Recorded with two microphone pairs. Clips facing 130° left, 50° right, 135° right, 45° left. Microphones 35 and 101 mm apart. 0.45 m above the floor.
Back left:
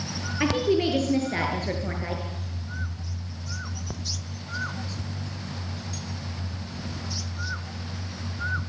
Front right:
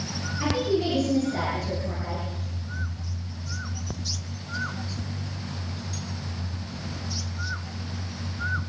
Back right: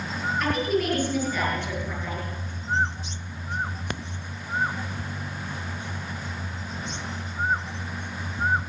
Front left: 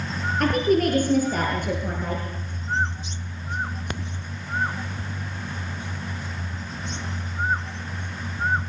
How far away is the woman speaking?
About 8 m.